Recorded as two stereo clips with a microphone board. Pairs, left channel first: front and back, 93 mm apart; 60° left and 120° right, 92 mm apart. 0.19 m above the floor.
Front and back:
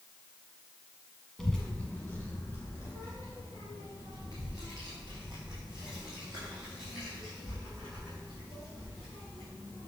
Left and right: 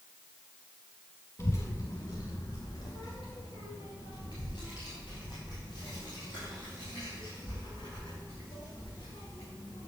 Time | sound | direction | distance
1.4 | a child speaking | 85° left | 0.8 m